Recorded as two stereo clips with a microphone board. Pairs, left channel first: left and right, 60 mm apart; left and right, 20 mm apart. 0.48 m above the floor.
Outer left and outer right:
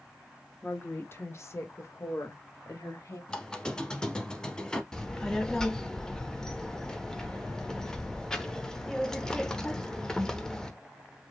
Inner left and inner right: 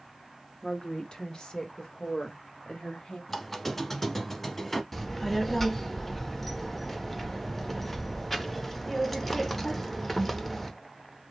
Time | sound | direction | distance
0.6 | a woman speaking | 30° left (ahead or behind) | 0.7 m
3.3 | a squeak | 15° left (ahead or behind) | 0.6 m
4.9 | a child speaking | 10° left (ahead or behind) | 0.7 m